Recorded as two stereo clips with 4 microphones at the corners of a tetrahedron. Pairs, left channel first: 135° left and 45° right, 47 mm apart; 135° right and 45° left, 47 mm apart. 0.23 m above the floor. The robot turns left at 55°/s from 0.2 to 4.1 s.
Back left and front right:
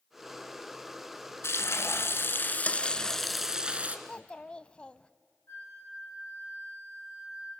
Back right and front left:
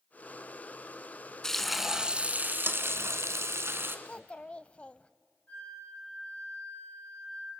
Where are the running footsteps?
No running footsteps in this recording.